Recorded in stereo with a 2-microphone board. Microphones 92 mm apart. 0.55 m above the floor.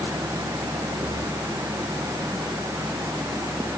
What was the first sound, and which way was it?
Only background noise.